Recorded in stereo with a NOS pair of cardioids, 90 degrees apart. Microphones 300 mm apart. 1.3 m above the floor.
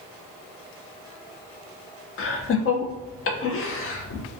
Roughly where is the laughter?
Ahead left.